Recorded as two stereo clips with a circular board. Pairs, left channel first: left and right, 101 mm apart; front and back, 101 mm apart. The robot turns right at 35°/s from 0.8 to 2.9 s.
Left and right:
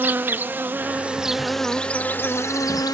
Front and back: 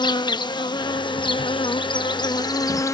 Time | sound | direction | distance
0.0 | an insect | 25° right | ?